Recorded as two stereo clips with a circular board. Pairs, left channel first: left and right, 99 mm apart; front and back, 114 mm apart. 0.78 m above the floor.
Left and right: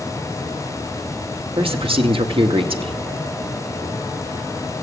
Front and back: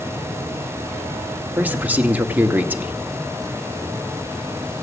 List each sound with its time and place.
1.6 s a man speaking: 105° right, 1.2 m